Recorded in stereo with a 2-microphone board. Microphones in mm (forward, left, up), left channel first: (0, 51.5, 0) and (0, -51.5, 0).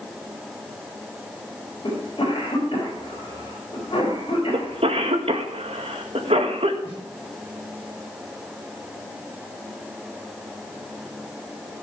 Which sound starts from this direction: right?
A cough, at 4.5 s.